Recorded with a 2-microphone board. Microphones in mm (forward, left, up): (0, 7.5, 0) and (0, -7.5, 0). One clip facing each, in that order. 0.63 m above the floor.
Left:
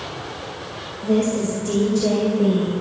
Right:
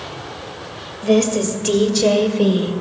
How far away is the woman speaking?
About 2.5 m.